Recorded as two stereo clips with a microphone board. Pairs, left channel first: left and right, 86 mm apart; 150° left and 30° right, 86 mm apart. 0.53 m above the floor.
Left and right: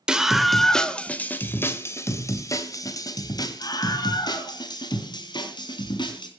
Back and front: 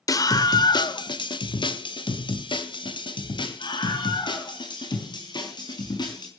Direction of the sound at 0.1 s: 170° right.